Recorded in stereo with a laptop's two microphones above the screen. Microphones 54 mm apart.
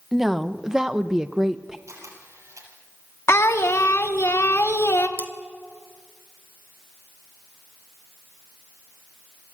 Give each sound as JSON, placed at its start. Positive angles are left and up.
{"t": 0.1, "sound": "a woman speaking", "side_deg": -5, "distance_m": 0.7}
{"t": 1.9, "sound": "a camera shutter", "side_deg": -65, "distance_m": 7.0}
{"t": 3.3, "sound": "singing", "side_deg": 60, "distance_m": 1.0}
{"t": 5.2, "sound": "cutlery clinking", "side_deg": 40, "distance_m": 1.0}